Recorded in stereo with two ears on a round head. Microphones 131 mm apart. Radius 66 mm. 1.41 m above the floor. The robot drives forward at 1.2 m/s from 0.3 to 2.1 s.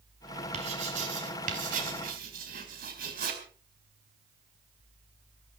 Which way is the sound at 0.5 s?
45° right (ahead or behind).